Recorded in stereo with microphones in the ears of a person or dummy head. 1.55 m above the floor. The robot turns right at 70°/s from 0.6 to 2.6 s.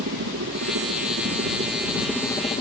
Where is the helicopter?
110° right; by 2.6 s 30° left.